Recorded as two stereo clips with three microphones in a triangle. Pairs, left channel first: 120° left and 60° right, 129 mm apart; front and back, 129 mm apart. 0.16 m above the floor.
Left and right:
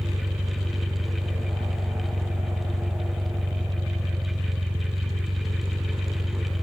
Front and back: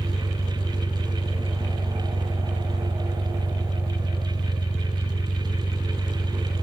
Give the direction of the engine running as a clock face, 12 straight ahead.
2 o'clock.